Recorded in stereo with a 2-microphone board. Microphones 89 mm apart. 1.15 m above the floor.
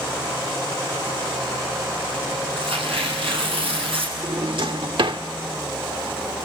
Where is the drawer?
65° right (ahead or behind), 1.3 m.